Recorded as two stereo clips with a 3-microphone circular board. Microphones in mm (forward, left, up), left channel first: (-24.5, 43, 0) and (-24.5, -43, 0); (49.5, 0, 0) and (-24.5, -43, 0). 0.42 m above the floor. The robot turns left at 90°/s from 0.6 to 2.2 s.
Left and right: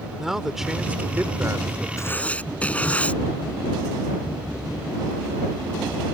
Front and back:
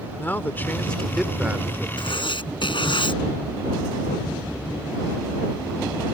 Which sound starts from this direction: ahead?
A man speaking, at 0.2 s.